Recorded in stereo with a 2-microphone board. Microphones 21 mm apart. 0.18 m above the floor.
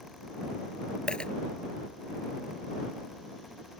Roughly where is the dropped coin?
Left.